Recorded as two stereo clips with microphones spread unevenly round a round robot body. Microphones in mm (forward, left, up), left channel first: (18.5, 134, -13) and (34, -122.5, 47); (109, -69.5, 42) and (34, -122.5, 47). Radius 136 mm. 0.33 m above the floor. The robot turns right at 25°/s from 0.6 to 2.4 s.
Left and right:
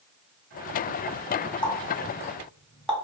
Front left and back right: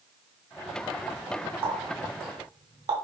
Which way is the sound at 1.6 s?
150° left.